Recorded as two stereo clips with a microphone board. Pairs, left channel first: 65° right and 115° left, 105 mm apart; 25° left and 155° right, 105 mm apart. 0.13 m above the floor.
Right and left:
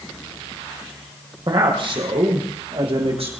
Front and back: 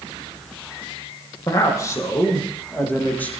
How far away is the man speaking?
About 4.5 m.